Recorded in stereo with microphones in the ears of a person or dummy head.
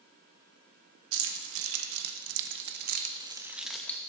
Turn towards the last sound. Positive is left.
turn(degrees=15)  # may be behind; listen again after turning